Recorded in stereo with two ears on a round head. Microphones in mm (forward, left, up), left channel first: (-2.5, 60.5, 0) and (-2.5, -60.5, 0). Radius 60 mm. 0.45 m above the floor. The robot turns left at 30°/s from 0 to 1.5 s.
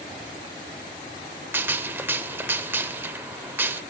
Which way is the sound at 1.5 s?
15° right (ahead or behind).